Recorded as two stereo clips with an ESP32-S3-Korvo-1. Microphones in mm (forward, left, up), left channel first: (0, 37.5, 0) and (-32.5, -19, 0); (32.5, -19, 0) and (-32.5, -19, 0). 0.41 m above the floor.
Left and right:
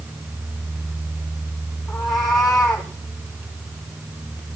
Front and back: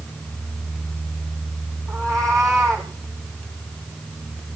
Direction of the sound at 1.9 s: 140° left.